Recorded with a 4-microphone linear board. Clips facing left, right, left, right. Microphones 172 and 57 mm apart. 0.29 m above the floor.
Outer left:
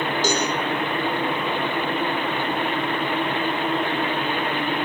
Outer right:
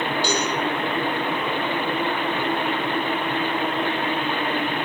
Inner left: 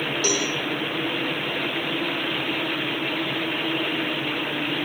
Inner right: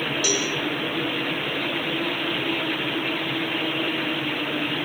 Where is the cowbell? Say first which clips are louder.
Outer left 3 dB, inner left 2 dB; 45° left (ahead or behind), 9 m.